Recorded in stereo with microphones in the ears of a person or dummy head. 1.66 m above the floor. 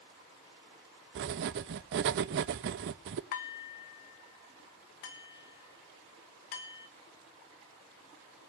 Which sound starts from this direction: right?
Writing, at 1.1 s.